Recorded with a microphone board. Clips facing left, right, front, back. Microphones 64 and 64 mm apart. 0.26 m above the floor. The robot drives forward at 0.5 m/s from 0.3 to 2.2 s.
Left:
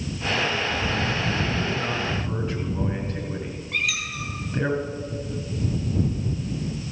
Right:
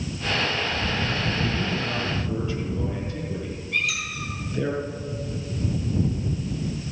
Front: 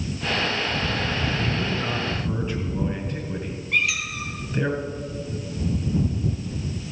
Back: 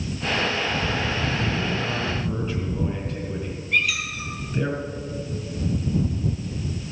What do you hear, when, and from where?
1.4 s a man speaking: 75° left, 2.5 m; by 4.7 s 85° left, 2.5 m
3.7 s a squeak: 80° left, 3.5 m